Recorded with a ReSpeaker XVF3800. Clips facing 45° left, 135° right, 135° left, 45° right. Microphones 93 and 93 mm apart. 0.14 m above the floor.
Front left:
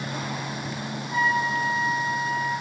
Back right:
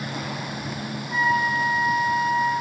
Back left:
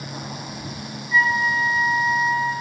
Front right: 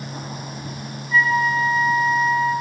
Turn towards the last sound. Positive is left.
turn(degrees=-130)